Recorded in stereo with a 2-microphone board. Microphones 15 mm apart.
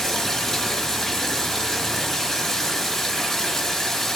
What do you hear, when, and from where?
0.0 s running water: 25° left (ahead or behind), 6 m